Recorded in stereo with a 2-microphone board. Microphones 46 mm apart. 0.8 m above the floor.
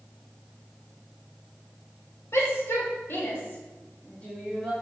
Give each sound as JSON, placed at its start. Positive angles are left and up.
{"t": 2.3, "sound": "a shout", "side_deg": 70, "distance_m": 4.0}